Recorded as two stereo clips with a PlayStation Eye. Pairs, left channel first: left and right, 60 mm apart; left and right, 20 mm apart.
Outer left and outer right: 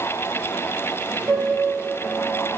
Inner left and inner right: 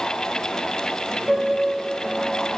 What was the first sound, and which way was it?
A piano, 20° right (ahead or behind).